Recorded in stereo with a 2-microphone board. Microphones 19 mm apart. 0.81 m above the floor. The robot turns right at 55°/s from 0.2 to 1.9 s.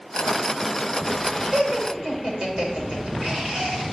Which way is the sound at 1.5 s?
55° right (ahead or behind).